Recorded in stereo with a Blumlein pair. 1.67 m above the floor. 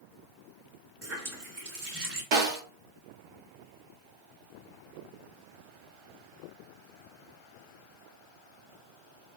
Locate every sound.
1.0 s a running tap: 30° right, 3 m
2.3 s a snare drum: 40° right, 2.5 m